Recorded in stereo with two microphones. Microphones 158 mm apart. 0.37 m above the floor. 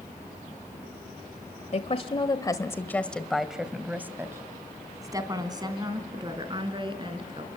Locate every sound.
1.7 s a woman speaking: 45° left (ahead or behind), 1.3 m; by 7.5 s 35° right (ahead or behind), 4 m